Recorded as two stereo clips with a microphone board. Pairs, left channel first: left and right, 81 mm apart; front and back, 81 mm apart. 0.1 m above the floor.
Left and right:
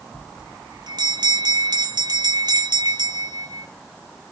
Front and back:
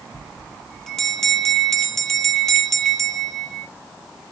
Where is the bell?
85° right, 0.8 m.